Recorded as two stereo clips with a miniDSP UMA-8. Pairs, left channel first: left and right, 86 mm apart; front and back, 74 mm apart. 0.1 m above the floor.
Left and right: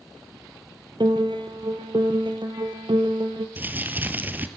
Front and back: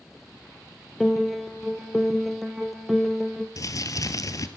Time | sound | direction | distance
1.0 | a piano | 90° right | 1.8 m
3.6 | crumpling | 25° right | 1.6 m